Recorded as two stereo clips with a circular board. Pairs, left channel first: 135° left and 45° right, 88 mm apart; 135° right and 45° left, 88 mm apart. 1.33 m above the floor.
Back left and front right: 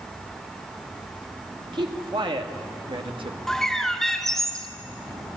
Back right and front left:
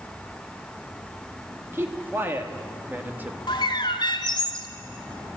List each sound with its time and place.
1.7 s a man speaking: 20° right, 2.5 m; by 3.4 s 25° right, 1.4 m
3.5 s a bird: 140° right, 1.7 m